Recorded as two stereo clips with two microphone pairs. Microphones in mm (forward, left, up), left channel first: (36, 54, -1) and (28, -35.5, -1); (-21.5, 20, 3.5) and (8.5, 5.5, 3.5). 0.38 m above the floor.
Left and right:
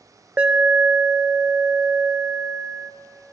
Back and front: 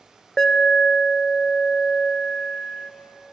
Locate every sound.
0.4 s an alarm: 150° right, 0.6 m